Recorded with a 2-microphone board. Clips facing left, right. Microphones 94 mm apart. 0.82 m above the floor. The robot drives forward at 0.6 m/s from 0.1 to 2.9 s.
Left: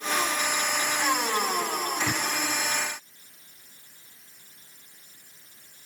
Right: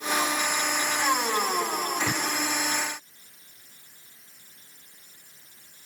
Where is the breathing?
65° right (ahead or behind).